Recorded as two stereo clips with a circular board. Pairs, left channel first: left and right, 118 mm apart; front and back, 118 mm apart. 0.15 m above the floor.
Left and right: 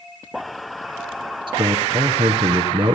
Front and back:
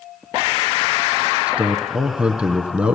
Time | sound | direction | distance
1.5 | a man speaking | 105° right | 1.4 m